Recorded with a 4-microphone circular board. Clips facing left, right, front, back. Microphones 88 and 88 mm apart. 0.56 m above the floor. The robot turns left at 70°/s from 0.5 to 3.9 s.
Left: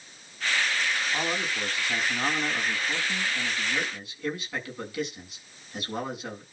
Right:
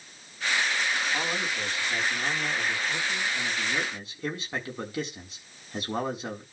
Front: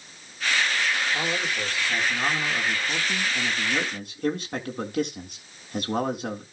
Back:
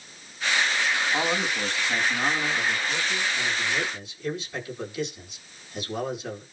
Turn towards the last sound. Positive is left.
turn(degrees=-30)